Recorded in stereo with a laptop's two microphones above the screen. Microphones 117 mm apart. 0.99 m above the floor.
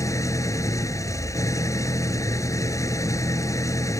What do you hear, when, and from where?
0.0 s an engine running: 25° left (ahead or behind)